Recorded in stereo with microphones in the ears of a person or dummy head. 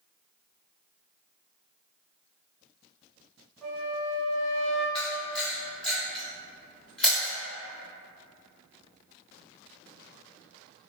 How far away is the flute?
About 1.0 m.